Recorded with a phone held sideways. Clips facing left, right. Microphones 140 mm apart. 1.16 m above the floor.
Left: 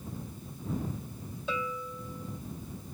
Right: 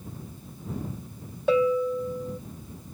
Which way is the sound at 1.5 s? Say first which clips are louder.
Right 15 dB; 65° right (ahead or behind).